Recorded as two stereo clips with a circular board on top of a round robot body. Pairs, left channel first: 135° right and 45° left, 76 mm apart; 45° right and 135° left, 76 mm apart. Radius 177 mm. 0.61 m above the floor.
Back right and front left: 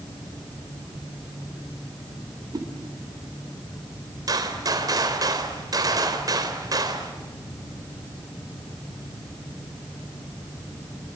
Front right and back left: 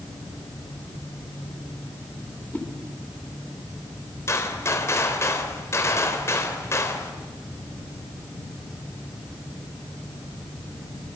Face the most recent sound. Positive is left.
turn(degrees=10)